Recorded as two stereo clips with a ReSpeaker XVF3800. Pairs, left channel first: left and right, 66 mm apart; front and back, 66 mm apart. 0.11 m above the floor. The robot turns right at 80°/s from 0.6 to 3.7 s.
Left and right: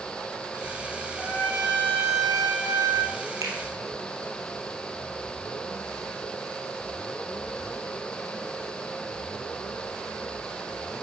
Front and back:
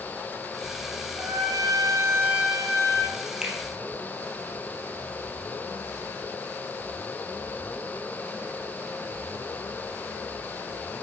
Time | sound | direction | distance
1.2 | a trumpet | 160° left | 1.8 m
3.4 | a finger snap | 105° right | 2.5 m